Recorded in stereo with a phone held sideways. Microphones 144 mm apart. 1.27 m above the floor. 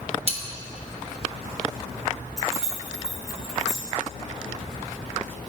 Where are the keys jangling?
5° right (ahead or behind), 1.7 m.